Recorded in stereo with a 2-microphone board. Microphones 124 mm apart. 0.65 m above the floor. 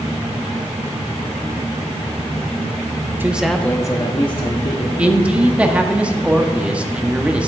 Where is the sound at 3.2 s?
15° right (ahead or behind), 0.7 m; by 4.9 s 55° left (ahead or behind), 1.3 m.